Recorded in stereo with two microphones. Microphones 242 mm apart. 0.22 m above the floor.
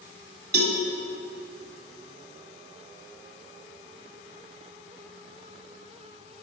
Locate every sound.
0.5 s a cowbell: 45° right (ahead or behind), 1.1 m